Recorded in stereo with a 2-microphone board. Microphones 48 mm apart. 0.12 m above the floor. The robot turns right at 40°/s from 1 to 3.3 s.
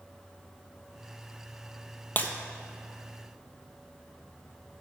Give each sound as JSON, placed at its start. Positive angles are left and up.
{"t": 2.2, "sound": "breaking glass", "side_deg": 35, "distance_m": 0.8}